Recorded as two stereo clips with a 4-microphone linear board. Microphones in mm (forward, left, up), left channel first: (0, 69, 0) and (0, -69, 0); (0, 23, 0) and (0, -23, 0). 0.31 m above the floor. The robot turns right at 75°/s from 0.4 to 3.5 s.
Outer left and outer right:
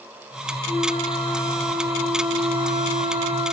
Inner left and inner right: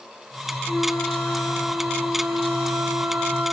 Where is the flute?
75° left, 7 m; by 3.5 s 70° right, 7 m.